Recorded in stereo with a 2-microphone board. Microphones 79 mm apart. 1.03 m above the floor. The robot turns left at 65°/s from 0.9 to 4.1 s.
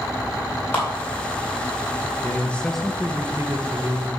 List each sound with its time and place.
0.7 s a clap: 20° left (ahead or behind), 3.5 m
2.2 s a man speaking: 40° left, 0.9 m; by 4.2 s 85° right, 0.9 m